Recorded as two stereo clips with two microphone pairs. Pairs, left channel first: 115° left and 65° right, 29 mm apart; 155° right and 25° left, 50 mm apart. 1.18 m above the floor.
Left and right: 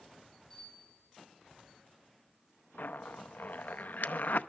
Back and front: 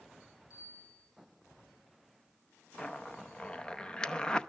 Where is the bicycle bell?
165° right, 8.5 m.